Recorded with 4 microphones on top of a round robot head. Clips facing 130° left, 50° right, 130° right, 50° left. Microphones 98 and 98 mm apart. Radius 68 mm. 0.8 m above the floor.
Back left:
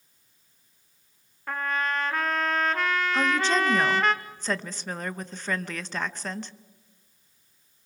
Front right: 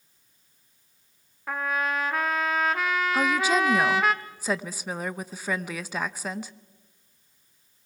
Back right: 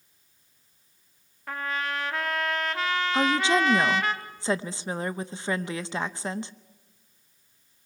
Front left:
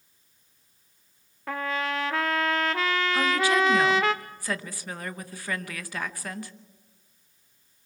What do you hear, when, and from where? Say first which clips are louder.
1.5 s a trumpet: front right 1 dB, front left 2 dB; 35° left, 0.9 m
3.1 s a woman speaking: front right 1 dB, back right 2 dB; 120° right, 0.7 m